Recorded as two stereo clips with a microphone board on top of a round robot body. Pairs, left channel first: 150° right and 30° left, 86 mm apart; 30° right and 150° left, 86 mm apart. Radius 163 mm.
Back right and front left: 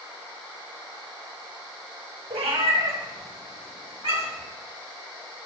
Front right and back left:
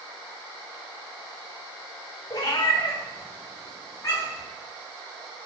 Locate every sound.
2.3 s a cat meowing: 20° left, 3 m; by 4.5 s 30° left, 6 m